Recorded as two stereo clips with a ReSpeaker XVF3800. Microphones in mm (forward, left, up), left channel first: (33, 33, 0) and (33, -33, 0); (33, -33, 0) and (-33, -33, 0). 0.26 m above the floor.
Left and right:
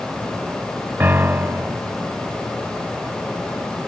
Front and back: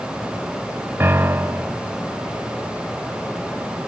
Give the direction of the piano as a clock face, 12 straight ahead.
5 o'clock.